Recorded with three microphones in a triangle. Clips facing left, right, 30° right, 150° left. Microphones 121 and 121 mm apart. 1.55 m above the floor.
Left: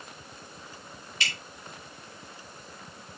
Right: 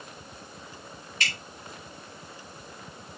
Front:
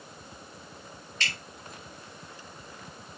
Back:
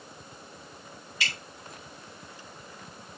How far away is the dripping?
About 3.5 m.